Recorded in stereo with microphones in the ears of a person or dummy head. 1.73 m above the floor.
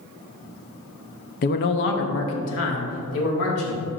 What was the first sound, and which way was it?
A man speaking, 45° left (ahead or behind).